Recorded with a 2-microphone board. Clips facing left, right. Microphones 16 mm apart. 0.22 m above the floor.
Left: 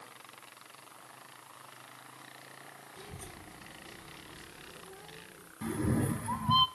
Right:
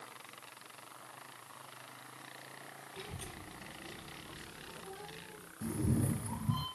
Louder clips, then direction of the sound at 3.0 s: Right 2 dB; 75° right (ahead or behind).